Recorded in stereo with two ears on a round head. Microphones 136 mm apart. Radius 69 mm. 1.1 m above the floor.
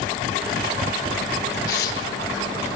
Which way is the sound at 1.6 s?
70° left (ahead or behind).